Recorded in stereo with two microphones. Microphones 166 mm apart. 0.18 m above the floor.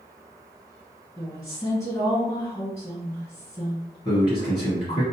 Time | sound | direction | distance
1.2 | a woman speaking | 25° left (ahead or behind) | 1.7 m
4.0 | a man speaking | 35° left (ahead or behind) | 1.2 m